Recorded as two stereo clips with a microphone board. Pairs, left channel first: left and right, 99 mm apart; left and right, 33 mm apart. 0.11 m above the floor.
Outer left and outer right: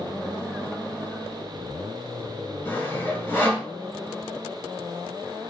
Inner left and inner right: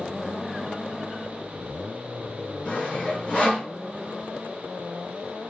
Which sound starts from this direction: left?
Sawing, at 2.6 s.